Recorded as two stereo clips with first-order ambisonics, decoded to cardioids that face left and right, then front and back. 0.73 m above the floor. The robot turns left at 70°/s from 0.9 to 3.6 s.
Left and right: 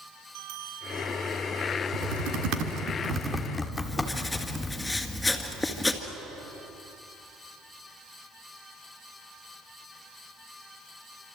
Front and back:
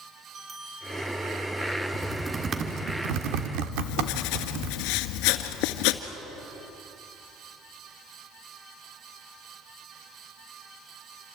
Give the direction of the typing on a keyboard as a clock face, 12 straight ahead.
3 o'clock.